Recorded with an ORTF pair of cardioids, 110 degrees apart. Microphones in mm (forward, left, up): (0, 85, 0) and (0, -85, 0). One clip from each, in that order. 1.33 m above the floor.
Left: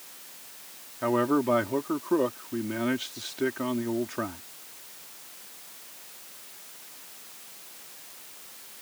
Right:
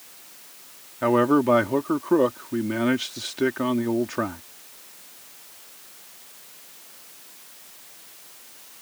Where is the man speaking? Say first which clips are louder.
Right 6 dB; 35° right.